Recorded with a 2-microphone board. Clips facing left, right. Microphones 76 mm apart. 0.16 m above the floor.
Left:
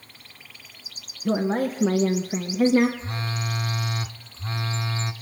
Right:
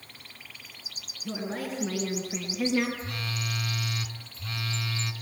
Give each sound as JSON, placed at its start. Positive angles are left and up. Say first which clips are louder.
{"t": 1.2, "sound": "a woman speaking", "louder": "left 10 dB", "side_deg": 45, "distance_m": 1.8}
{"t": 3.0, "sound": "a phone buzzing", "louder": "left 4 dB", "side_deg": 30, "distance_m": 1.2}